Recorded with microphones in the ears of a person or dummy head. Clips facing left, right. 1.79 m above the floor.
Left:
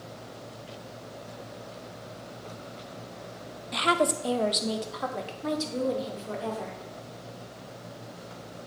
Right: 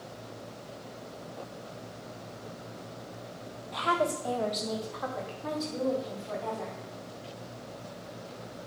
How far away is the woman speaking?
About 0.7 m.